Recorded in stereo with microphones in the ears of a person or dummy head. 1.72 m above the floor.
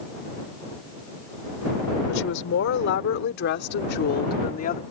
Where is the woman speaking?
65° left (ahead or behind); by 4.8 s 35° left (ahead or behind).